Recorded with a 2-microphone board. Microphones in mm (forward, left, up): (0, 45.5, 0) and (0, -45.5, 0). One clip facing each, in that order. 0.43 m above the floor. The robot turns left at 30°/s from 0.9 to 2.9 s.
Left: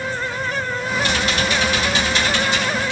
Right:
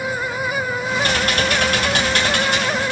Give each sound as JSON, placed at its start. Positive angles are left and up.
{"t": 1.0, "sound": "typing on a keyboard", "azimuth_deg": -55, "distance_m": 2.0}